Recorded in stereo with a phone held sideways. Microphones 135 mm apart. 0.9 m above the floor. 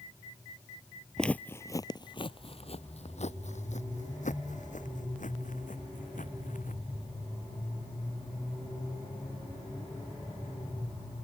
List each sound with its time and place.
1.2 s footsteps: 5° left (ahead or behind); by 6.8 s 80° left